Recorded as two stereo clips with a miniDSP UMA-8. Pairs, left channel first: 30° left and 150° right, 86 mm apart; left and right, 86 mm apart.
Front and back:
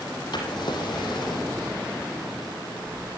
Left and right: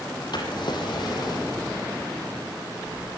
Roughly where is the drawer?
Ahead left.